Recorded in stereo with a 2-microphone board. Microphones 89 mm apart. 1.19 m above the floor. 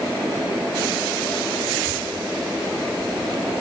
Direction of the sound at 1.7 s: 5° left (ahead or behind).